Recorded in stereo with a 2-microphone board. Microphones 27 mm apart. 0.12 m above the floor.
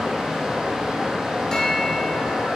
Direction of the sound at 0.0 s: 25° right (ahead or behind).